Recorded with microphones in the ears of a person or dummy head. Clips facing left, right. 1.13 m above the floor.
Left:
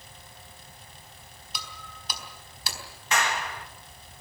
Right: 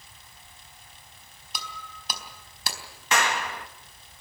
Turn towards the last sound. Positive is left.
turn(degrees=-55)  # may be behind; listen again after turning